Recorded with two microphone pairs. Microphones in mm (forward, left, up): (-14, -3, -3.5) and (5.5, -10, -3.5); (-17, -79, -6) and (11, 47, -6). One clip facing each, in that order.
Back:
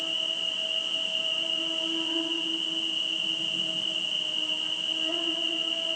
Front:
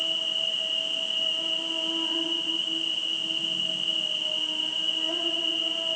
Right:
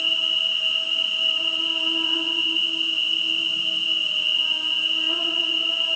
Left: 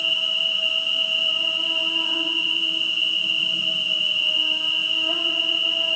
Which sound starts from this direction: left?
An insect, at 0.0 s.